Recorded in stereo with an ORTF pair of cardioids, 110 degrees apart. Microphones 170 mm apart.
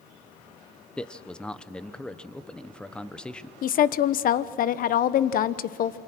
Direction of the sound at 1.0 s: 5° left.